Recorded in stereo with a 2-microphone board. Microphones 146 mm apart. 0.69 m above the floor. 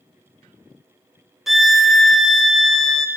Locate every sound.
1.5 s a violin: centre (ahead or behind), 0.8 m